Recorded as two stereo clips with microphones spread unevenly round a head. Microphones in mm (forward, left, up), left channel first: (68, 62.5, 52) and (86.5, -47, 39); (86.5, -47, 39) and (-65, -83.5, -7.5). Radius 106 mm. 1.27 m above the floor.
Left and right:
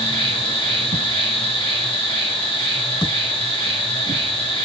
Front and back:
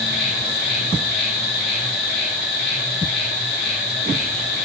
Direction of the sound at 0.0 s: 55° left.